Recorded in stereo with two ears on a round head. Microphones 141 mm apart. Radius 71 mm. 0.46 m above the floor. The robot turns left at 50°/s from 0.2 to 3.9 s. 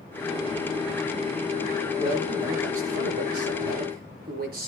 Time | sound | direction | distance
2.0 | a man speaking | 15° right | 7 m